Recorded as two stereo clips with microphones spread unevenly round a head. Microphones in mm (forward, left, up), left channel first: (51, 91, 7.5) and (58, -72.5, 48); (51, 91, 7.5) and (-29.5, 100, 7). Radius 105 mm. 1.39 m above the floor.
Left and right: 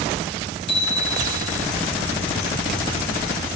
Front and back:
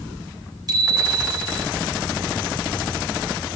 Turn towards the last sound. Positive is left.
turn(degrees=140)